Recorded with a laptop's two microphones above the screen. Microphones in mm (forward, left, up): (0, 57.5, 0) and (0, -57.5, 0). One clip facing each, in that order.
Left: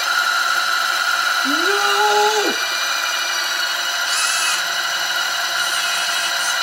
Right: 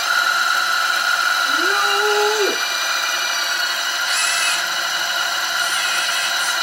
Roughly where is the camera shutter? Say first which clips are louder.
Even; left.